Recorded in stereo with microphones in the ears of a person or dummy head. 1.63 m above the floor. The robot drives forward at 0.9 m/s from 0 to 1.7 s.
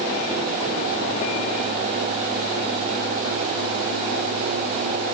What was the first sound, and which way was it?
Only background noise.